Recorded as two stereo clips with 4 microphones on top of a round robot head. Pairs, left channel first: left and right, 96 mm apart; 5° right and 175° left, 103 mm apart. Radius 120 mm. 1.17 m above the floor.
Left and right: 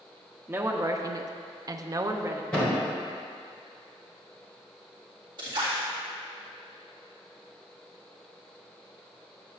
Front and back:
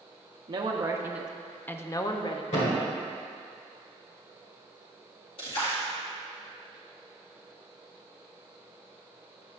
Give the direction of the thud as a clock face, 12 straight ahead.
12 o'clock.